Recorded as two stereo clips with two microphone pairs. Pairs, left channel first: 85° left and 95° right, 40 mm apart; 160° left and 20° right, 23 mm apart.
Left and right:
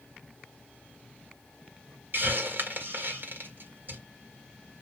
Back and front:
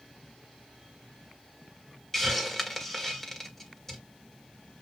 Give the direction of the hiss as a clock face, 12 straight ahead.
4 o'clock.